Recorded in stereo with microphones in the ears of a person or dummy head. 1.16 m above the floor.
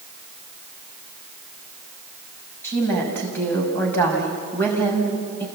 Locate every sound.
2.6 s a woman speaking: 15° left (ahead or behind), 6 m